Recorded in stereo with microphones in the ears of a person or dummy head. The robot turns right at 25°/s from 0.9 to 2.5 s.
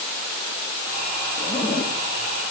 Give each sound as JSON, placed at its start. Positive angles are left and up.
{"t": 1.4, "sound": "a zipper", "side_deg": 15, "distance_m": 2.5}